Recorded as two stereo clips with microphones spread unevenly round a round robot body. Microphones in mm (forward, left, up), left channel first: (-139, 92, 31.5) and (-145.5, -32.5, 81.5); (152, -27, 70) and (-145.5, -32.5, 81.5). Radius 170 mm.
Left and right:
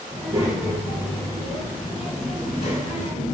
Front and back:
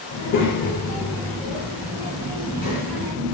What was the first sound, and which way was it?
A child speaking, 10° right.